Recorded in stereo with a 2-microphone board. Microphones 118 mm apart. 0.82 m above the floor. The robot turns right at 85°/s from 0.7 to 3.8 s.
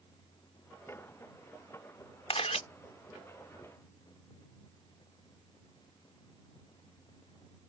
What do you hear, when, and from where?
2.3 s a camera shutter: 60° left (ahead or behind); by 2.6 s 75° left (ahead or behind)